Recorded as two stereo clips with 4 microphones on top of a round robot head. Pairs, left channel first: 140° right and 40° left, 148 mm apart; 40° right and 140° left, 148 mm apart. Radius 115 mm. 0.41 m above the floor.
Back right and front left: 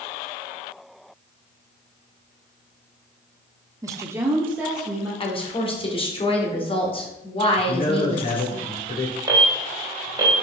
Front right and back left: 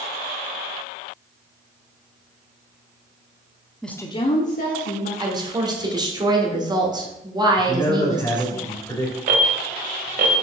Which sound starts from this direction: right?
A man speaking, at 7.6 s.